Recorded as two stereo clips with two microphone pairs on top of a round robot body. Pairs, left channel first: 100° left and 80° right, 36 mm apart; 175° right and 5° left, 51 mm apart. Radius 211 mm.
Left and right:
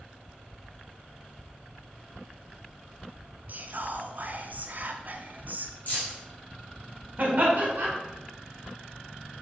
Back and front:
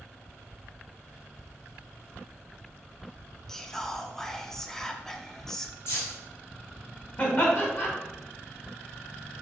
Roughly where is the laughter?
Behind right.